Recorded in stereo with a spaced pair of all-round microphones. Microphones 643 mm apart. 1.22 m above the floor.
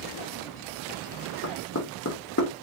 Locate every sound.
1.4 s knocking: 25° left (ahead or behind), 1.5 m